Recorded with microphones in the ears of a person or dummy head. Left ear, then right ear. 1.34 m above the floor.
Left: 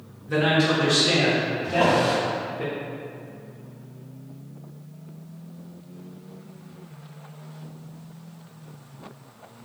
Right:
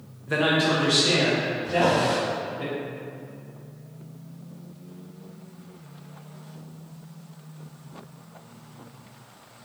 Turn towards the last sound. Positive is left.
turn(degrees=30)  # may be behind; listen again after turning